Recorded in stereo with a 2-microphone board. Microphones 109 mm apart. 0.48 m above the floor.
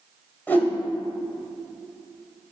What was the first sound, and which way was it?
A whoosh, 15° left (ahead or behind).